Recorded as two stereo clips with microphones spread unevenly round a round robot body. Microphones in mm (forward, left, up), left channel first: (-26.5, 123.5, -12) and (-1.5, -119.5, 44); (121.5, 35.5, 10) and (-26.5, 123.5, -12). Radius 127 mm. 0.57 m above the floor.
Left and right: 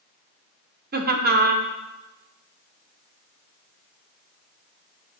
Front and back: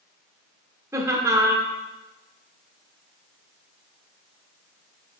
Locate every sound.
0.9 s laughter: 140° right, 1.2 m